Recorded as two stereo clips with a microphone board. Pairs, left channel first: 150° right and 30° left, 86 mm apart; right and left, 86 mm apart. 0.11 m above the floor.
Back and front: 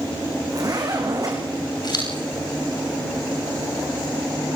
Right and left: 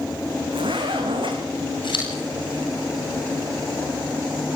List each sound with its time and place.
0.5 s a zipper: 75° left, 5 m
1.8 s scissors: 115° right, 9.5 m